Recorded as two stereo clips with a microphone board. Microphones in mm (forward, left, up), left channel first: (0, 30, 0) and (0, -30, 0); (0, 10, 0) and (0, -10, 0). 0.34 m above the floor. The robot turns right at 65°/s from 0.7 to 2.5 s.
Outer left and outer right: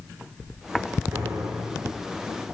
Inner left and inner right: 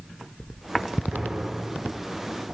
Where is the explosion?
60° right, 8 m; by 2.0 s straight ahead, 8 m.